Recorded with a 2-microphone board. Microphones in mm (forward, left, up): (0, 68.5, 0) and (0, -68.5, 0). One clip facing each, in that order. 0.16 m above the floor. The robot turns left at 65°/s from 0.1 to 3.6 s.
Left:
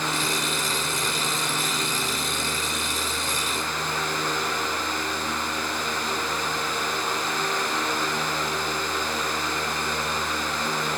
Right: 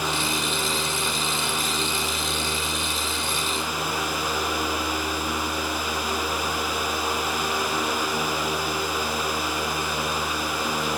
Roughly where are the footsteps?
I don't hear footsteps.